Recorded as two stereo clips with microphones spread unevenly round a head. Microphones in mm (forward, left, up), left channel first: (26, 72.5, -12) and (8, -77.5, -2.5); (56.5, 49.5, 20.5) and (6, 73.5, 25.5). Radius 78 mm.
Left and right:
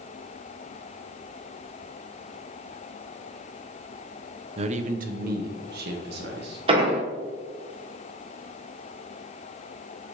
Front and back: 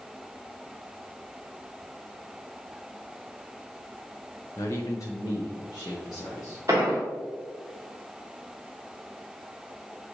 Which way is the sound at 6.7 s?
145° right.